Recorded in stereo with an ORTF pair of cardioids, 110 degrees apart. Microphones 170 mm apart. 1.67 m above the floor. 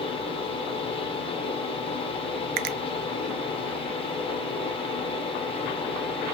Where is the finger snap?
65° right, 0.5 m.